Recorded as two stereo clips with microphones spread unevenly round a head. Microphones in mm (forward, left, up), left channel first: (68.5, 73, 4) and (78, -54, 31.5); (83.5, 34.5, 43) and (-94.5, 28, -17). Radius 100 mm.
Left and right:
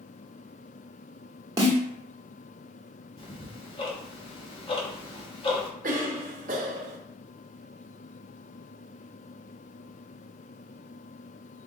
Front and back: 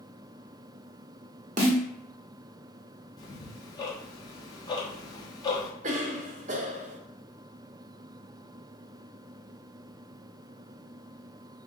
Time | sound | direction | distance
1.6 | a snare drum | 120° right | 1.1 m
3.2 | ticking | 50° left | 1.1 m
5.8 | a cough | 120° right | 0.6 m